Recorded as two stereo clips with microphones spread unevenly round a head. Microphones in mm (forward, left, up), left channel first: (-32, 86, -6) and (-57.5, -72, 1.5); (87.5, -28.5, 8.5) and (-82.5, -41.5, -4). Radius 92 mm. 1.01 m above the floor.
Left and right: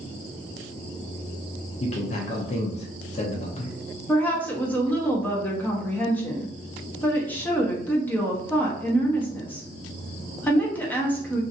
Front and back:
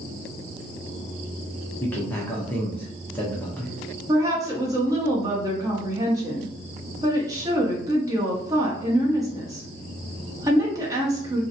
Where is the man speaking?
85° left, 0.6 m.